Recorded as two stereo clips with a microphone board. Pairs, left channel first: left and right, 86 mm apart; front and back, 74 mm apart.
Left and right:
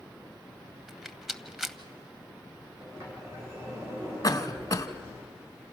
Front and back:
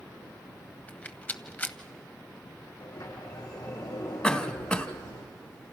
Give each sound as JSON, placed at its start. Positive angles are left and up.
{"t": 0.9, "sound": "a rattle", "azimuth_deg": -10, "distance_m": 0.8}
{"t": 2.8, "sound": "a sliding door", "azimuth_deg": -30, "distance_m": 7.0}
{"t": 4.2, "sound": "a cough", "azimuth_deg": 75, "distance_m": 1.3}